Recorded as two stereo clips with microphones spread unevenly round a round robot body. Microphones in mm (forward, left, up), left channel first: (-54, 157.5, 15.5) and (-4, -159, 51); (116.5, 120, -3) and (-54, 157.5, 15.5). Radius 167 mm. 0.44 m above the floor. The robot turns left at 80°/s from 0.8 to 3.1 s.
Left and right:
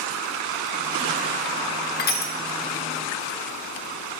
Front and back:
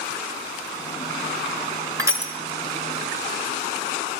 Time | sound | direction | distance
2.0 | crushing | 100° left | 1.2 m